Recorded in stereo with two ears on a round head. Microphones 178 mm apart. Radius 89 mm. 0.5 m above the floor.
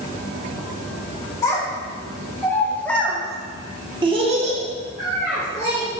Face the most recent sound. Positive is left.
turn(degrees=-35)  # may be behind; listen again after turning